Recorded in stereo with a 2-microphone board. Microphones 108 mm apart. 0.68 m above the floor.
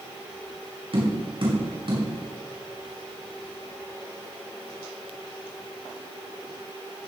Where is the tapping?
60° right (ahead or behind), 6.5 m.